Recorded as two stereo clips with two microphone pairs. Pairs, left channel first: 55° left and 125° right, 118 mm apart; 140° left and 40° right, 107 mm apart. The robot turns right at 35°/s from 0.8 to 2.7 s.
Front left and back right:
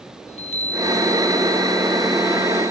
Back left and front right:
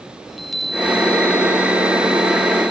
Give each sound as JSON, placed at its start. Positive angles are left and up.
{"t": 0.3, "sound": "a chime", "azimuth_deg": 55, "distance_m": 1.0}